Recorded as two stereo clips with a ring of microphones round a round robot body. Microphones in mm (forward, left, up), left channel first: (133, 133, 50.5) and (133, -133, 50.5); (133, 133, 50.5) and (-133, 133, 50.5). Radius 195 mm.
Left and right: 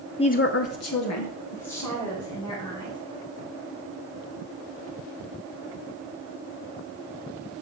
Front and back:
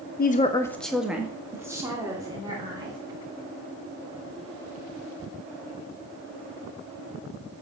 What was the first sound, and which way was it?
A woman speaking, 25° left.